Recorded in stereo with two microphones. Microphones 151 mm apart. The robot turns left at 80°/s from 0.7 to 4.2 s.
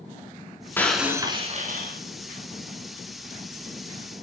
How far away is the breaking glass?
About 4 m.